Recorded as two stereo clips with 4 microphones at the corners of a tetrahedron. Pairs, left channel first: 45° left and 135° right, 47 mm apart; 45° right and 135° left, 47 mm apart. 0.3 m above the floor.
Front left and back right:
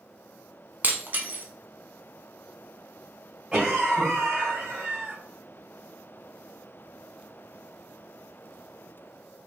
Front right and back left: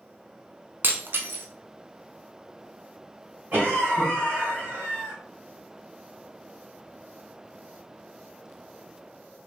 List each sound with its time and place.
0.8 s breaking glass: 175° left, 0.6 m
3.5 s a cough: 165° left, 2.0 m